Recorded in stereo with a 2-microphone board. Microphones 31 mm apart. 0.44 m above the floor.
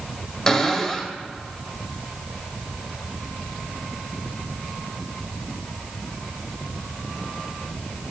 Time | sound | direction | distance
0.5 | a cupboard door | 15° left (ahead or behind) | 1.4 m